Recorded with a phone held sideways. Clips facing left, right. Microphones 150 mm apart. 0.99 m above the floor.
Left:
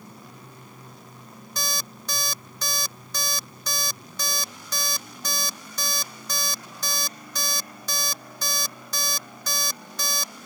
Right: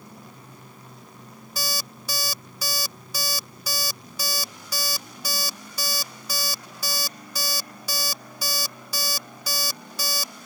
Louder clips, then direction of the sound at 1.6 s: Right 1 dB; 10° right (ahead or behind).